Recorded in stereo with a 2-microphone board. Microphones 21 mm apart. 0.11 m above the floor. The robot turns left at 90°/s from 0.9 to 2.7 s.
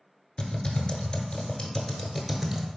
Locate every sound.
0.4 s typing on a keyboard: 35° left (ahead or behind), 0.9 m; by 2.7 s 25° right (ahead or behind), 0.9 m